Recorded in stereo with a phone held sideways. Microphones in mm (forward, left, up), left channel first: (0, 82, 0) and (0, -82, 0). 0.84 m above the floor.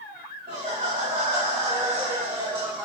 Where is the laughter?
55° right (ahead or behind), 2.5 m; by 2.9 s 25° right (ahead or behind), 1.3 m.